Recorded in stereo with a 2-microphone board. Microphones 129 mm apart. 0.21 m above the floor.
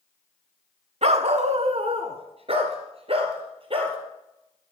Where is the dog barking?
55° right (ahead or behind), 0.6 m; by 4.0 s 45° right (ahead or behind), 2.0 m.